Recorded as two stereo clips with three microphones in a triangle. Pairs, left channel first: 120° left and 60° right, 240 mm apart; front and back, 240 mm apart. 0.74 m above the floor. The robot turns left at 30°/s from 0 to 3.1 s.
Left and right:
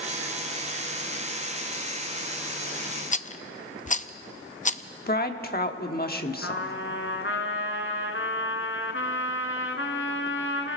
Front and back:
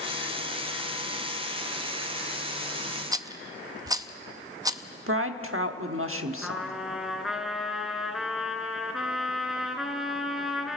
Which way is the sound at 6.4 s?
90° left.